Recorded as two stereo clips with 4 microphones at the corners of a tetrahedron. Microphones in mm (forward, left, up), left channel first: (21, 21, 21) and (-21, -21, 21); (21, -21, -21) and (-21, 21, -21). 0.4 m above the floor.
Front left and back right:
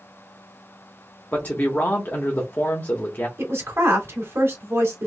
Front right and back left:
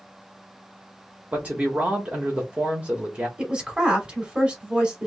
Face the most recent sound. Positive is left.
turn(degrees=-160)